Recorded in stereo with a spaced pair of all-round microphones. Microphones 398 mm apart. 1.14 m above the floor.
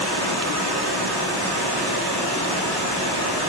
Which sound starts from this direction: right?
Running water, at 0.0 s.